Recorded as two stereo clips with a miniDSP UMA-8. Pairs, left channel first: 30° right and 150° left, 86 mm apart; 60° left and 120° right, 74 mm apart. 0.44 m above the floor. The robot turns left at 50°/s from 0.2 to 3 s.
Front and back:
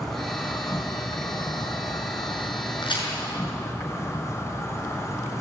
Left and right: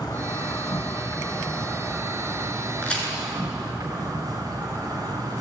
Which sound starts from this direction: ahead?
A crack, at 2.8 s.